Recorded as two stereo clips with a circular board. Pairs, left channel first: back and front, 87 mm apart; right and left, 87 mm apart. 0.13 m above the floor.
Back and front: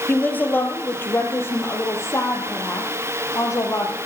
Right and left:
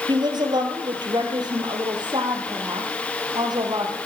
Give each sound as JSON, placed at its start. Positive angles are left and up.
{"t": 0.1, "sound": "a woman speaking", "azimuth_deg": 110, "distance_m": 2.5}